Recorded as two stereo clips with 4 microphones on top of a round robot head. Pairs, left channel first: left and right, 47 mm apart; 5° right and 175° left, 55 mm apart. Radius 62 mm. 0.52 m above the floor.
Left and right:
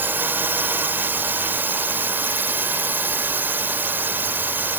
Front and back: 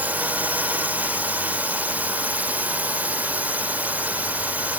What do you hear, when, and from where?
0.0 s a drone: 130° right